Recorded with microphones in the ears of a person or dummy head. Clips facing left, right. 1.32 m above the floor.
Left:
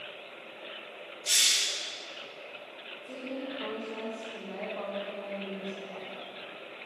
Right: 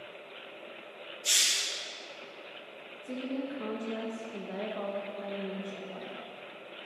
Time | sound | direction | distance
1.2 | a hiss | 40° right (ahead or behind) | 2 m
3.0 | a woman speaking | 35° right (ahead or behind) | 1.6 m